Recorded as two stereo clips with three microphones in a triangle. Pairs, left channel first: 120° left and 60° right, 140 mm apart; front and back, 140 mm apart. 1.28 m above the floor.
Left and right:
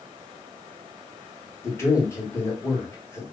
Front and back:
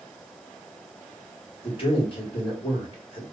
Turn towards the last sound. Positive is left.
turn(degrees=50)